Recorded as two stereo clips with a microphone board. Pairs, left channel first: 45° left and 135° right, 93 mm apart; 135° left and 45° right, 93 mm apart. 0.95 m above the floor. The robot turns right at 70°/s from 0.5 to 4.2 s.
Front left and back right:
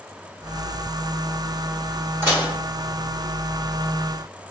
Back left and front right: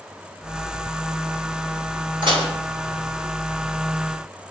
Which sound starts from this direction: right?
Dishes clattering, at 2.2 s.